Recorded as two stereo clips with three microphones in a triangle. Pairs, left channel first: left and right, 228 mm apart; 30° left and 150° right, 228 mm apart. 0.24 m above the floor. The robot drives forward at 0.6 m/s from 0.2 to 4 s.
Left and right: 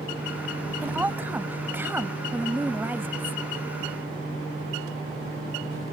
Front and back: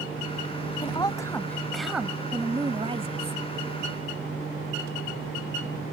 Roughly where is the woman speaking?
Ahead.